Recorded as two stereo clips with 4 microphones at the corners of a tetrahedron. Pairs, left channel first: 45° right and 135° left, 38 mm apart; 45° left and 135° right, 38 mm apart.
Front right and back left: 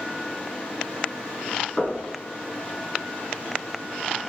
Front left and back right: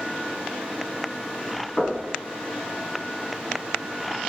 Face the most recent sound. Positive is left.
turn(degrees=0)